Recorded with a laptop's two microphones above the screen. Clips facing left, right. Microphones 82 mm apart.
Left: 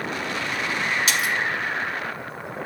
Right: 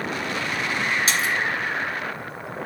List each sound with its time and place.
1.1 s a splash: 35° right (ahead or behind), 1.8 m